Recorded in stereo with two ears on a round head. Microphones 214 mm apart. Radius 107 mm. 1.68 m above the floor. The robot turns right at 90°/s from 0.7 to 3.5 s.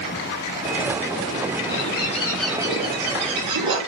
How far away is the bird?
About 6 m.